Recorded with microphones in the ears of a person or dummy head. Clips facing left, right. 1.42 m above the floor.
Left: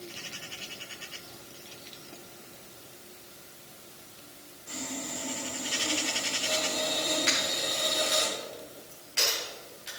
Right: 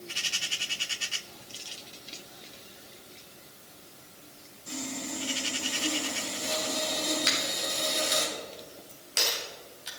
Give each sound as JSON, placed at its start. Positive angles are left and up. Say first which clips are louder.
{"t": 4.7, "sound": "sawing", "louder": "right 2 dB", "side_deg": -85, "distance_m": 3.0}
{"t": 7.3, "sound": "a dropped coin", "louder": "left 1 dB", "side_deg": -65, "distance_m": 3.0}